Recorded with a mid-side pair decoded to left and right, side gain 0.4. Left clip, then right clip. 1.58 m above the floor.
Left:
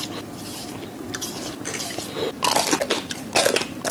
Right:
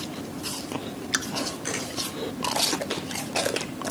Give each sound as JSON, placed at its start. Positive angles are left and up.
{"t": 1.6, "sound": "a camera shutter", "azimuth_deg": 0, "distance_m": 8.5}